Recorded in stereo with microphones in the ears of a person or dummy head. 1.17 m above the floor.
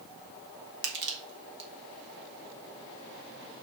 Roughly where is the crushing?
Right.